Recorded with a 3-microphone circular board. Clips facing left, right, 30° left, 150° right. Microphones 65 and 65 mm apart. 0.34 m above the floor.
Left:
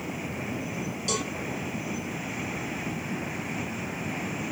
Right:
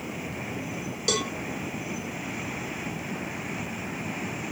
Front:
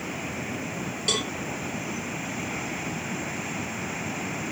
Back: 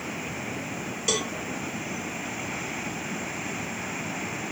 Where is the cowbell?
65° right, 0.7 m.